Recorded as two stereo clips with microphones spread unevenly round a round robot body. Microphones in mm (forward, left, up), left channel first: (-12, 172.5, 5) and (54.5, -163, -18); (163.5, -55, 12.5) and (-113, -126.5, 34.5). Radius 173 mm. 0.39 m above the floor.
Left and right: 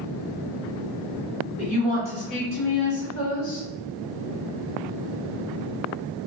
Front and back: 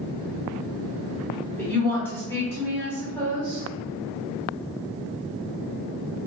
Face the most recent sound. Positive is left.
turn(degrees=85)